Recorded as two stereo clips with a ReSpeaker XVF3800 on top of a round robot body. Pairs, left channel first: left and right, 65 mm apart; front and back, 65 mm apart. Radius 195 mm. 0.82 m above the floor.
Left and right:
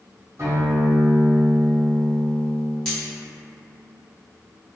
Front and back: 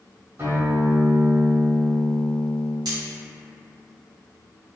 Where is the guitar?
130° right, 1.2 m.